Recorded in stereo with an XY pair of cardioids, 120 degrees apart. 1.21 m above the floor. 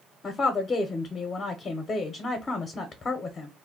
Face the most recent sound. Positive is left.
turn(degrees=35)